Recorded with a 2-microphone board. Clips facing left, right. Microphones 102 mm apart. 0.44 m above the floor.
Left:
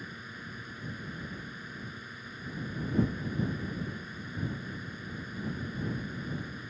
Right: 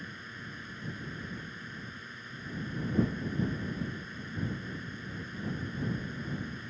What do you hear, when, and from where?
0.0 s a drone: 10° left (ahead or behind)